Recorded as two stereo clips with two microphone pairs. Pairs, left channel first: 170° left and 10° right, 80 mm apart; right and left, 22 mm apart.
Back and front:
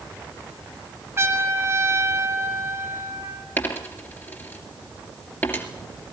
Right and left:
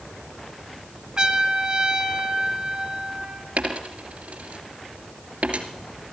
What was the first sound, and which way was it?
A trumpet, 45° left.